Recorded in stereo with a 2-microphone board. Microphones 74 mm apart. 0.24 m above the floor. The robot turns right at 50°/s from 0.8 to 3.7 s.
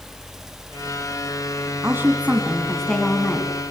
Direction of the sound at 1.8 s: 45° right.